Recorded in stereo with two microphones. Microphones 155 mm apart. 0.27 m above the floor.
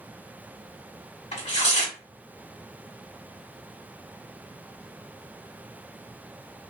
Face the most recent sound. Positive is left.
turn(degrees=50)  # may be behind; listen again after turning